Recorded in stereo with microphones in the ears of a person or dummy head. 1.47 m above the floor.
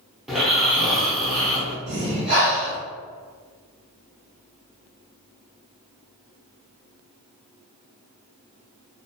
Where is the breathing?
65° right (ahead or behind), 1.3 m.